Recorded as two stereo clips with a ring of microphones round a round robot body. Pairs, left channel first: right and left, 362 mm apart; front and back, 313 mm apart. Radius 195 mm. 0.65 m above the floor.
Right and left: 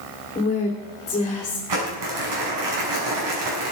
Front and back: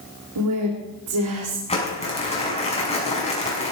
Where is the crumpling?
70° left, 6.5 m.